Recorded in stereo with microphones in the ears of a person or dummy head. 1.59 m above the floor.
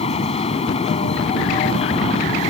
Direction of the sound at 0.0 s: 35° left (ahead or behind).